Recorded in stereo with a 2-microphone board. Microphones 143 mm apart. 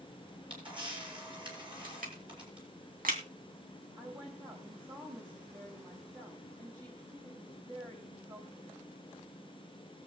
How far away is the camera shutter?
About 5.5 m.